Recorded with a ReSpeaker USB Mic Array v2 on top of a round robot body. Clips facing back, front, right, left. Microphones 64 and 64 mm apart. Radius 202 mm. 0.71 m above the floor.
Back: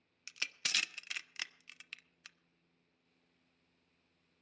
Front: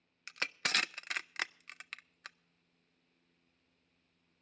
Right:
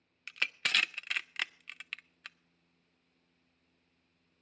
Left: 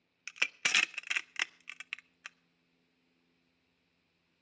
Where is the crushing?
15° left, 0.6 m.